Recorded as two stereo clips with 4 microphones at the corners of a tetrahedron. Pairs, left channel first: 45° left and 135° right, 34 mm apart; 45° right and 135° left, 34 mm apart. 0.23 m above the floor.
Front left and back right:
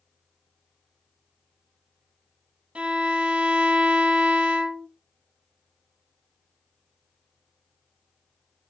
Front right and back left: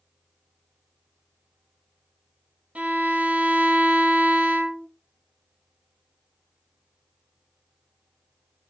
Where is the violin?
Straight behind, 0.6 m.